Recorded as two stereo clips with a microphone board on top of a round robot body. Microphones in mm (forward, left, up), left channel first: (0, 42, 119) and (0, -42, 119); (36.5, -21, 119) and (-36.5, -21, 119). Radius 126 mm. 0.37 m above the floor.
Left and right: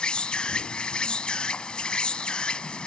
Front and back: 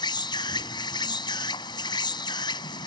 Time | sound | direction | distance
0.0 | an insect | 10° left | ?